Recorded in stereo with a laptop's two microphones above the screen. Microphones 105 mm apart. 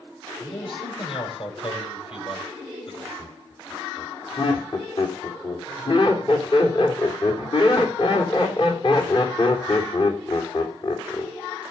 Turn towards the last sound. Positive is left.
turn(degrees=50)  # may be behind; listen again after turning